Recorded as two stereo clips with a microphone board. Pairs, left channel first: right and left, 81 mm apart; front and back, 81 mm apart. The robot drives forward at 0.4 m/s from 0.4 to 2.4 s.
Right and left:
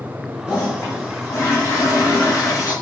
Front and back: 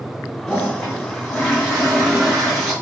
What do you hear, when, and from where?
0.5 s a toilet flushing: 55° right, 2 m; by 2.7 s 85° right, 1.9 m